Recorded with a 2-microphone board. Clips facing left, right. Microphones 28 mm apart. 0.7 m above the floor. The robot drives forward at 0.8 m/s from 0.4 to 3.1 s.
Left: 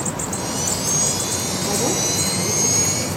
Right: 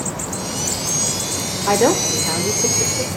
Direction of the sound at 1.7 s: 70° right (ahead or behind).